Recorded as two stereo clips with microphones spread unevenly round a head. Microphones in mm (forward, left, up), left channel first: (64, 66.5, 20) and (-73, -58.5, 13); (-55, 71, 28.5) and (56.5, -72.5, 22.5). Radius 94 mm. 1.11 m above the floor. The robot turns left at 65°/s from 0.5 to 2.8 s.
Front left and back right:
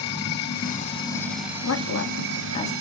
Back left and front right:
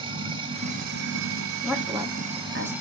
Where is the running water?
10° left, 1.3 m; by 2.8 s 140° right, 1.3 m.